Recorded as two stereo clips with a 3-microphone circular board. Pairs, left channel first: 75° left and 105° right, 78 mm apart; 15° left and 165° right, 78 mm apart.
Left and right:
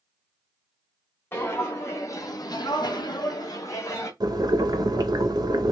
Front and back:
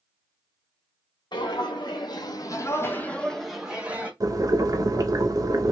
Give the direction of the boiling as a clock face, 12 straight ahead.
4 o'clock.